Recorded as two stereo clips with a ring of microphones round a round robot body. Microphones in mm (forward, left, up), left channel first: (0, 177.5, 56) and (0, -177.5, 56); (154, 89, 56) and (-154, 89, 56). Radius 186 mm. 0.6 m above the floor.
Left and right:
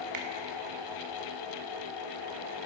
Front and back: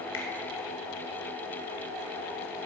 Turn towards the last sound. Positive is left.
turn(degrees=-55)